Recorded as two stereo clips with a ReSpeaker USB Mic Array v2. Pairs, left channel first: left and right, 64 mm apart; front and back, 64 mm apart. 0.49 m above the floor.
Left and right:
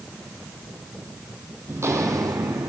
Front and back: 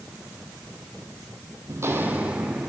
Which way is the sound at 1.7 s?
145° right.